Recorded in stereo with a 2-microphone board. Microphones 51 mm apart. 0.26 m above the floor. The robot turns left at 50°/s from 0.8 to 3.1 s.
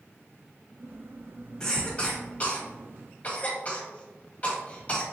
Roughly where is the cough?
Centre.